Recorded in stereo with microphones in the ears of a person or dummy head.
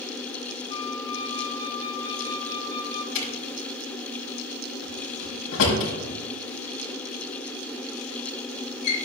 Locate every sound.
0.7 s a flute: 20° left (ahead or behind), 0.6 m
3.1 s a drawer: 80° left, 6 m